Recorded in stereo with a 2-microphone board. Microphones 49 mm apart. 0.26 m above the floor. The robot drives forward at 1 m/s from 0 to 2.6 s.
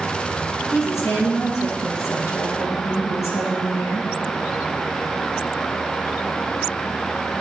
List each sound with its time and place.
0.7 s a woman speaking: 70° left (ahead or behind), 4.5 m